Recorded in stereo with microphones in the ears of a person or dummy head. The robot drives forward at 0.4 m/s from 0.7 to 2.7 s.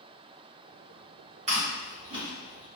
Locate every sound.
1.5 s chewing: 40° right (ahead or behind), 1.5 m; by 2.6 s 30° right (ahead or behind), 1.9 m